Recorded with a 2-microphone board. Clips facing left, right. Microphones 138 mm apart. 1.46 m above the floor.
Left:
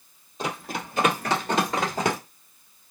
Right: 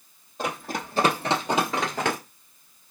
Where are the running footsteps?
50° right (ahead or behind), 2.5 m; by 2.2 s 20° left (ahead or behind), 1.5 m.